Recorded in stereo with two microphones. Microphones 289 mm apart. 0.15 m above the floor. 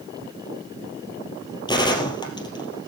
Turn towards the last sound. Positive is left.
turn(degrees=15)  # may be behind; listen again after turning